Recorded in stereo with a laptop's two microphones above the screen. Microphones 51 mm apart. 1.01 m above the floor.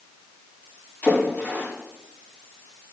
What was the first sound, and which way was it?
A splash, 35° left (ahead or behind).